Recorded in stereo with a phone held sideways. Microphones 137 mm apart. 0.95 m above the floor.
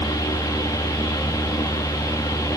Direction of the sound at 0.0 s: 25° left (ahead or behind).